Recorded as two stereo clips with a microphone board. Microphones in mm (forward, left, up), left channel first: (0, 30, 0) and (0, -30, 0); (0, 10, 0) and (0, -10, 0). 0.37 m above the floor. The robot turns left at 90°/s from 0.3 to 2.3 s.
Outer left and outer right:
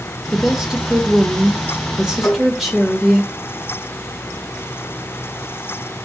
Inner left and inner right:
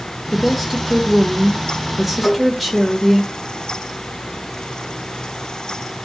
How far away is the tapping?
About 2.5 m.